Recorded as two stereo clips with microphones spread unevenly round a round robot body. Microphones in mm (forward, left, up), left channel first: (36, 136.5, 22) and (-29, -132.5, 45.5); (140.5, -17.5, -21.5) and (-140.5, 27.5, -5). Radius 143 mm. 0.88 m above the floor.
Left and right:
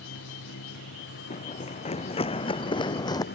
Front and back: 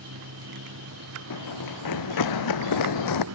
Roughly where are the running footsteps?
Ahead.